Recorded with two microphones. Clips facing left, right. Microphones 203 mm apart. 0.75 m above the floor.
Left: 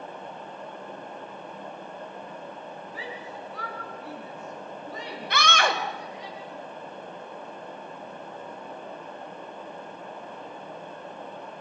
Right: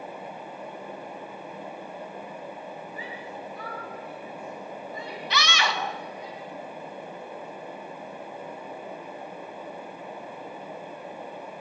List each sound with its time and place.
2.9 s a shout: 85° left, 8 m
5.3 s a scream: 50° left (ahead or behind), 1.5 m